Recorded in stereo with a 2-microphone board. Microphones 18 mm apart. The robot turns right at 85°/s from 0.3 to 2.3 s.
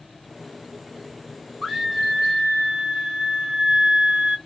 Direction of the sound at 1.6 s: 160° right.